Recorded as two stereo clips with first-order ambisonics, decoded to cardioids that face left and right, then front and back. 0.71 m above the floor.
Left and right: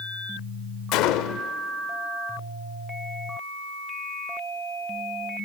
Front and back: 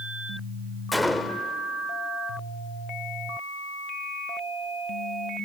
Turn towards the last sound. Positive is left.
turn(degrees=85)